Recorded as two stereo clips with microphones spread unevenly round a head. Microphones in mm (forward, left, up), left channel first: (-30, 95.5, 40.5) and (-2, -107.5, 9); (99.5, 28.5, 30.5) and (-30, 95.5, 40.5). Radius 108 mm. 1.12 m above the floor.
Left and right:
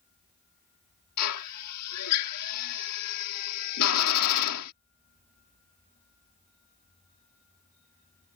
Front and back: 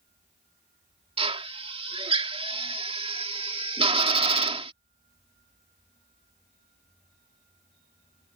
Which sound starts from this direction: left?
A drill, at 1.2 s.